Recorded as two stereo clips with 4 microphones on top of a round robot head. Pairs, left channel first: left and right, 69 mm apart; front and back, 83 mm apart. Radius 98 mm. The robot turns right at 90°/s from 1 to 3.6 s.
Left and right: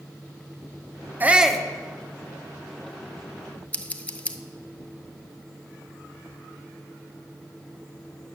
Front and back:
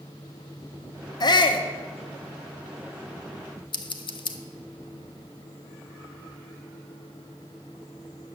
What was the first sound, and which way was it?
A shout, 30° right.